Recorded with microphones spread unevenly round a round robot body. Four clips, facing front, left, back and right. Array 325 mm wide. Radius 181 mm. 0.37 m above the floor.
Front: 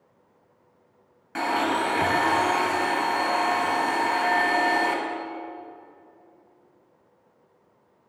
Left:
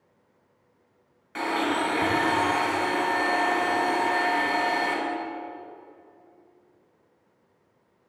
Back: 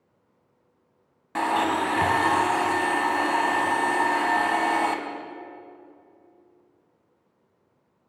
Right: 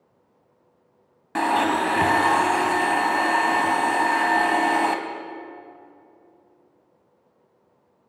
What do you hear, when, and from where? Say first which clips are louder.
1.4 s a blender: right 5 dB, back 1 dB; 90° right, 1.6 m